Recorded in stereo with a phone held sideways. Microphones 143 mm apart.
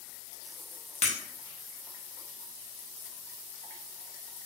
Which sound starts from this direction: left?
Breaking glass, at 1.0 s.